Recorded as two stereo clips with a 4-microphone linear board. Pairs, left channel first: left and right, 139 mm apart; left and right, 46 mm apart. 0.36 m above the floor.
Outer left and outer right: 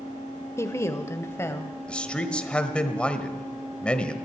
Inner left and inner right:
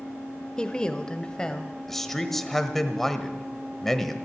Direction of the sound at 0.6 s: 20° left (ahead or behind).